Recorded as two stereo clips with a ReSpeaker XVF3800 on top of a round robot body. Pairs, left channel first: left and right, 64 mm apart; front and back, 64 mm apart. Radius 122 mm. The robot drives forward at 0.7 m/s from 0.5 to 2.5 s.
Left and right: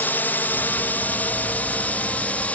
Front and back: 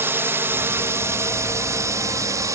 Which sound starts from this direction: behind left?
A drone, at 0.0 s.